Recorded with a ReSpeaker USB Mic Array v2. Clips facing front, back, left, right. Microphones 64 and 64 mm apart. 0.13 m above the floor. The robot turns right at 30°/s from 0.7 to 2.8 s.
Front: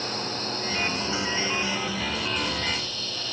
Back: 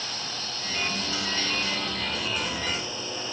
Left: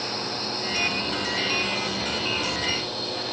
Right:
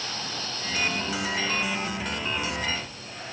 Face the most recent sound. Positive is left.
turn(degrees=110)